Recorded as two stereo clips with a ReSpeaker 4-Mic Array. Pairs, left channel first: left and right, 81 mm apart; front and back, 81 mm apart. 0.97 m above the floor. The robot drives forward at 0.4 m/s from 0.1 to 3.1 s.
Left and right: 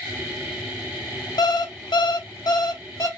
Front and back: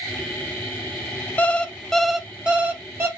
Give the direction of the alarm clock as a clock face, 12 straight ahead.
10 o'clock.